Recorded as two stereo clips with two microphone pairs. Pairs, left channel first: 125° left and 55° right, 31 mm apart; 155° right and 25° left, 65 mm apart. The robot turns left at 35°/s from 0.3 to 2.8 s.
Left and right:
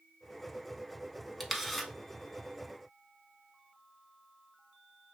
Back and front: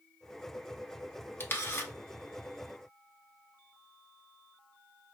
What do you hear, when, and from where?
1.4 s a camera shutter: 150° right, 0.5 m; by 1.9 s 170° right, 0.5 m